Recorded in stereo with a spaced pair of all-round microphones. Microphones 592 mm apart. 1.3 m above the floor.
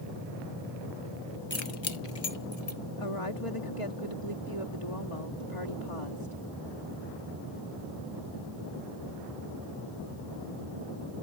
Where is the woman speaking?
60° left (ahead or behind).